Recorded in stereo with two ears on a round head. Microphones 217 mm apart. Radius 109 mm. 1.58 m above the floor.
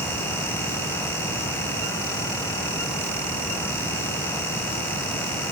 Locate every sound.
Only background noise.